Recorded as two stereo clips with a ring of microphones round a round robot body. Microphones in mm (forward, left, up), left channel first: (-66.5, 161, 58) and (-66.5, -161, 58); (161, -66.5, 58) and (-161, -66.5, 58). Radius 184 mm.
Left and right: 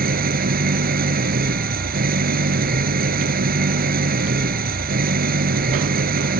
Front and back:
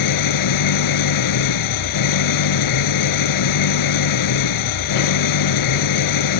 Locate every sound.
0.0 s an engine running: 25° right